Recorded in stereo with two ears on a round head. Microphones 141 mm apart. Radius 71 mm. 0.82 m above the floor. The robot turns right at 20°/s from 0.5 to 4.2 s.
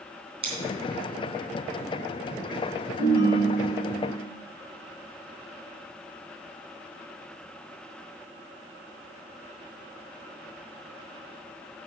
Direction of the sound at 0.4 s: 35° right (ahead or behind).